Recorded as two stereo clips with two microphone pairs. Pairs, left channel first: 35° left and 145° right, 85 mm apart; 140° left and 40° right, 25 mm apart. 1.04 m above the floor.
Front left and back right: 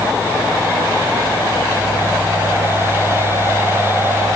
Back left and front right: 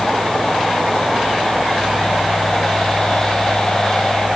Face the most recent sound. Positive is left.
No sound to turn to.